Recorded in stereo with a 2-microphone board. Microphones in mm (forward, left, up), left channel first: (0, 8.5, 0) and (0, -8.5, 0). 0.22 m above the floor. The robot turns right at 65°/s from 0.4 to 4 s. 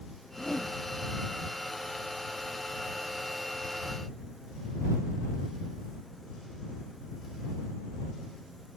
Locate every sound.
0.3 s a whoosh: 75° left (ahead or behind); by 0.8 s 55° left (ahead or behind)